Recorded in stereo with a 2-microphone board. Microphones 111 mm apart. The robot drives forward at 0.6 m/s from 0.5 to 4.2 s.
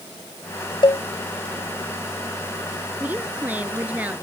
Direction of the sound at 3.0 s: 15° right (ahead or behind).